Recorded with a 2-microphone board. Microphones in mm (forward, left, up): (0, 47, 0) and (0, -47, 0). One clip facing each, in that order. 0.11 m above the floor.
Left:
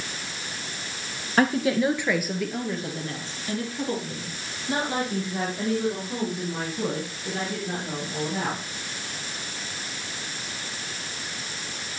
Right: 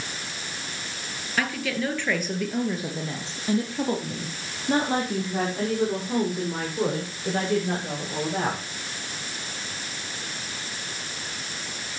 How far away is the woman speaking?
About 2.0 m.